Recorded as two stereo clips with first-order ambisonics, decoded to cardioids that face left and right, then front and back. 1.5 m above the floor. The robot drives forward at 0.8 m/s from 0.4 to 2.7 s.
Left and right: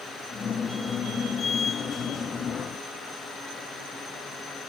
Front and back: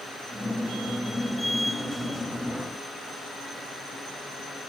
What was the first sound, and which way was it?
Only background noise.